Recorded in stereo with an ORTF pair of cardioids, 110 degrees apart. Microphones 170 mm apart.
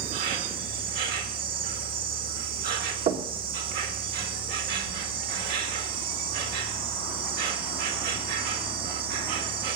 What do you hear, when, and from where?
0.0 s an insect: 65° right, 2.0 m
3.1 s knocking: 70° right, 2.0 m